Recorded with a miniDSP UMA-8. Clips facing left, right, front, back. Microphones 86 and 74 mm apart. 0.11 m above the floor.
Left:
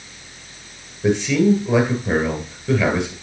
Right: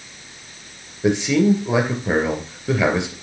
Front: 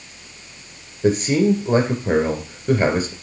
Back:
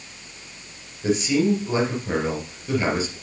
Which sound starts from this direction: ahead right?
A man speaking, at 1.0 s.